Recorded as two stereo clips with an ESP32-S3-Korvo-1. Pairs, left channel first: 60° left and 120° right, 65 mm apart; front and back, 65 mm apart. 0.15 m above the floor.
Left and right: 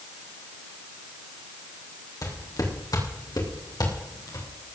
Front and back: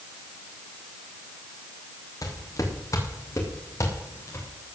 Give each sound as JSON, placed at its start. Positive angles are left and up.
{"t": 2.2, "sound": "footsteps", "azimuth_deg": 35, "distance_m": 5.0}